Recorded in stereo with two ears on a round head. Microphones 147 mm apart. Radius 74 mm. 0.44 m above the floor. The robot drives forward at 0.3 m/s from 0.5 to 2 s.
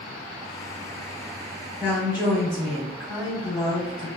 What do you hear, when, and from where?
1.8 s a woman speaking: 10° right (ahead or behind), 0.8 m